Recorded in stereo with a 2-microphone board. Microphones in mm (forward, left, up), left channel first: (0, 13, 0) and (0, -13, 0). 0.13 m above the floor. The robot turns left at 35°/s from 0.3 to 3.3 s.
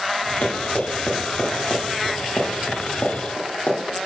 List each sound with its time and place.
0.4 s running footsteps: 70° left (ahead or behind), 2.5 m; by 3.8 s 55° left (ahead or behind), 2.5 m